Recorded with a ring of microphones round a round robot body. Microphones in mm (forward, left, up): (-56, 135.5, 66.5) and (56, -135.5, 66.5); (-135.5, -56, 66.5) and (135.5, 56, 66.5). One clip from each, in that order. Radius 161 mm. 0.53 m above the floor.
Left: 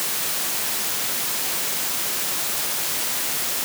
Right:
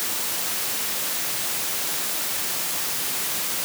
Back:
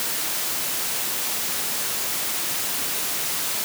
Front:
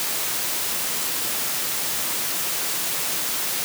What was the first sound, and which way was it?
Only background noise.